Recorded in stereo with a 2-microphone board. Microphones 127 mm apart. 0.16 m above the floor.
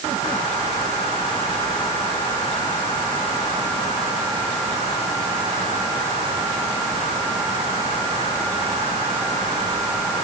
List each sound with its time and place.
Only background noise.